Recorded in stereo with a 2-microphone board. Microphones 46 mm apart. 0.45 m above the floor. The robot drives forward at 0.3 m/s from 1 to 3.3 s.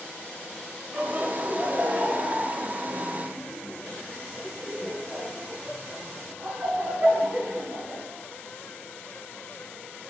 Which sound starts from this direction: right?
Laughter, at 0.9 s.